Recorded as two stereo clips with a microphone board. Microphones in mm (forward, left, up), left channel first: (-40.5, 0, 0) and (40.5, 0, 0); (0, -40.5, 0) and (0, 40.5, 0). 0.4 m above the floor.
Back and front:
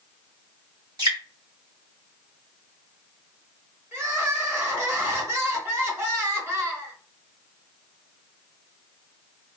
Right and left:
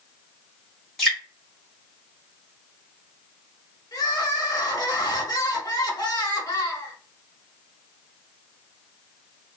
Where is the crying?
55° right, 0.8 m.